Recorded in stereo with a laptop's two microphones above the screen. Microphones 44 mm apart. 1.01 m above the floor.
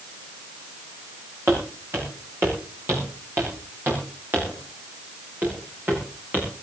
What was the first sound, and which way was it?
Footsteps, 65° right (ahead or behind).